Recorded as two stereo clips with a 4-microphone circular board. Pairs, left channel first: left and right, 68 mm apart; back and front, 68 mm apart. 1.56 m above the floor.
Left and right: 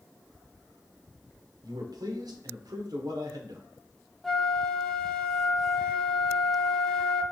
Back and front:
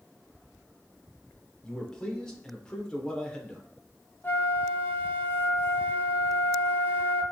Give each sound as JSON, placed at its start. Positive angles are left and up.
{"t": 1.6, "sound": "a man speaking", "azimuth_deg": -100, "distance_m": 1.2}
{"t": 4.2, "sound": "a flute", "azimuth_deg": 175, "distance_m": 0.6}